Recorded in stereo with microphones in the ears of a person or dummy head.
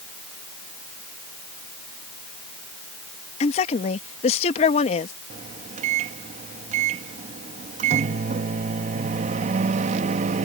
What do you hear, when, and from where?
3.4 s a woman speaking: 35° left (ahead or behind)
5.3 s a microwave: 45° right (ahead or behind)